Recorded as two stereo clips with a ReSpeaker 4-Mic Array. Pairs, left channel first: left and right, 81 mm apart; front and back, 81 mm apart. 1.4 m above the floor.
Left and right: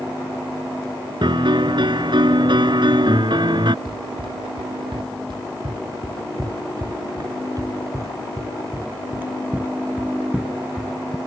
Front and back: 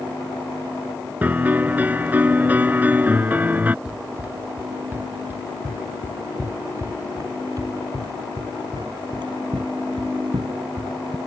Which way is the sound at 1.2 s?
110° right.